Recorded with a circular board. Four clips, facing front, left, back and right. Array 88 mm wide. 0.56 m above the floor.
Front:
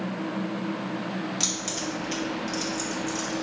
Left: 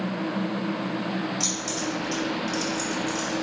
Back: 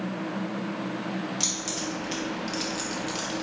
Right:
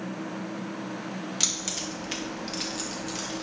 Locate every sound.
1.4 s keys jangling: 80° right, 1.2 m; by 3.4 s straight behind, 0.9 m